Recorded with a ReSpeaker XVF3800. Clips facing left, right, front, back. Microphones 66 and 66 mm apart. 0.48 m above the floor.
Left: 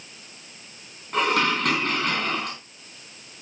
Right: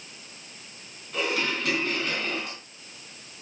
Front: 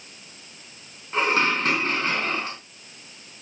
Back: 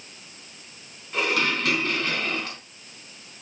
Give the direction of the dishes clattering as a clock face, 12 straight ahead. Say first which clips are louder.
Left 6 dB, front 3 dB; 10 o'clock.